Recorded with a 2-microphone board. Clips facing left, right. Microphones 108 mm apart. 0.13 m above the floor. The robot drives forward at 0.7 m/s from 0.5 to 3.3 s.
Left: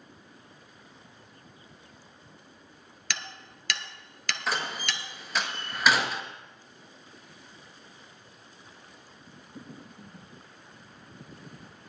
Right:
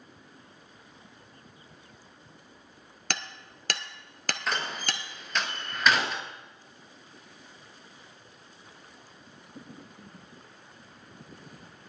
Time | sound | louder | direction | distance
3.1 | hammering | right 2 dB | 50° right (ahead or behind) | 0.8 m
4.5 | a door slam | left 1 dB | 5° left (ahead or behind) | 1.5 m